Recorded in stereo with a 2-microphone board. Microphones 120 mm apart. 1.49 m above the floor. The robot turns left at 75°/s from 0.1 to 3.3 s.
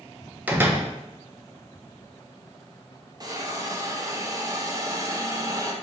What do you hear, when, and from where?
0.5 s a door slam: 15° right (ahead or behind), 0.6 m; by 0.9 s 20° right (ahead or behind), 0.6 m
3.2 s a hiss: 35° right (ahead or behind), 0.5 m; by 5.7 s 25° right (ahead or behind), 0.5 m